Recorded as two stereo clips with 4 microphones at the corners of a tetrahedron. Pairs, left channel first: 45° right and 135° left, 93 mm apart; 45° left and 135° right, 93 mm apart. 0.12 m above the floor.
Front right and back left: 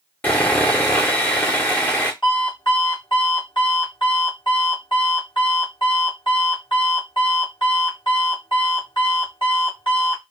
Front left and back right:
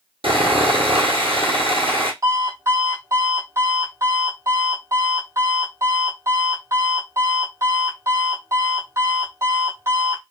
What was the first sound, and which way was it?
Sawing, 115° right.